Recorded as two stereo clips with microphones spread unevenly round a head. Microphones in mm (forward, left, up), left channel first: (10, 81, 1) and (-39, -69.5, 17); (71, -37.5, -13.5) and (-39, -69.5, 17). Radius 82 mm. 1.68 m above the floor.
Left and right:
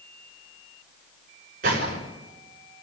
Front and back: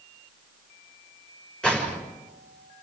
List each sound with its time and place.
1.6 s a gunshot: 70° right, 6 m